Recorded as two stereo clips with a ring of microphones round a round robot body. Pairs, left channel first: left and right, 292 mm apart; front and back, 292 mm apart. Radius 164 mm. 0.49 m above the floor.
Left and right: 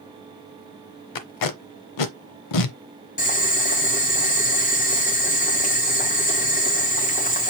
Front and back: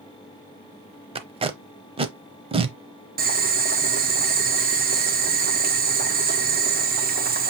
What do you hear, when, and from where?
1.1 s tape being pulled: 105° left, 0.8 m
3.2 s boiling: 140° left, 1.5 m